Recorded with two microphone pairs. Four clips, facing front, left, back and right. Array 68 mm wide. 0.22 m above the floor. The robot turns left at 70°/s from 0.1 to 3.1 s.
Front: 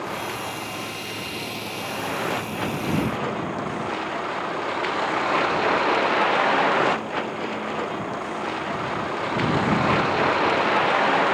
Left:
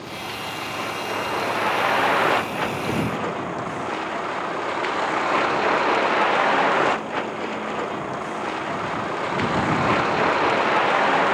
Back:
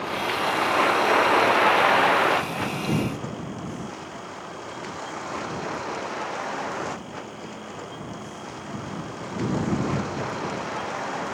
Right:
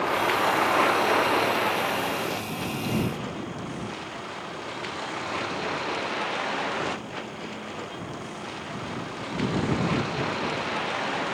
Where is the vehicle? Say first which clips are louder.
Right 8 dB, back 4 dB; 85° right; by 11.3 s 65° left.